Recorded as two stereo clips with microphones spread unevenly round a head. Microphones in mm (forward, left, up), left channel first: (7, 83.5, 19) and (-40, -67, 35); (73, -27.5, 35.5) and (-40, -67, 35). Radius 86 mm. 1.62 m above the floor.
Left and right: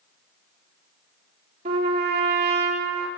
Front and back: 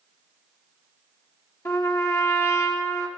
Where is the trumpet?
45° right, 3.5 m.